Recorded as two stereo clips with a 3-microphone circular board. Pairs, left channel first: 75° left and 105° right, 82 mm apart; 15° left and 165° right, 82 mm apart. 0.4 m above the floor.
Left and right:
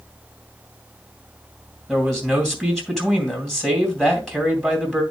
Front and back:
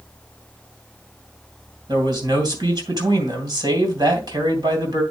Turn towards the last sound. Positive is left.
turn(degrees=160)